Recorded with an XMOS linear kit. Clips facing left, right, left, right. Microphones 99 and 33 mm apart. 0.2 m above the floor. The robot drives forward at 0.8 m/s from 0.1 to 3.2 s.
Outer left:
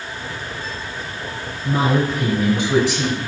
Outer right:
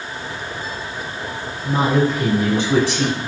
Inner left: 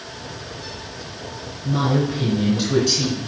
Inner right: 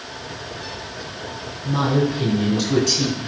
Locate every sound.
1.6 s a woman speaking: 5° right (ahead or behind), 3 m